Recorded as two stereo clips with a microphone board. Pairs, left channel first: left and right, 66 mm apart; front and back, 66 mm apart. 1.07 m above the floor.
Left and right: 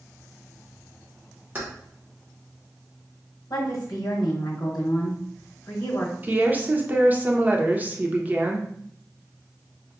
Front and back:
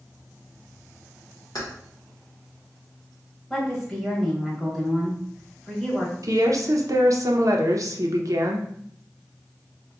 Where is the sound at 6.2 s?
150° right, 0.6 m.